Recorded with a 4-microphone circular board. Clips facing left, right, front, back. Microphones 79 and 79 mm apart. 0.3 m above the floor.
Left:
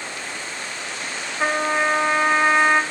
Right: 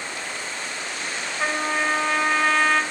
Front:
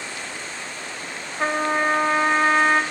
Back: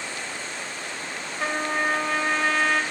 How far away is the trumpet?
About 0.6 m.